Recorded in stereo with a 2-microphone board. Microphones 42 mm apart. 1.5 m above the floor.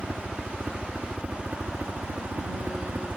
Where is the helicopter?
25° right (ahead or behind); by 3.2 s 55° right (ahead or behind).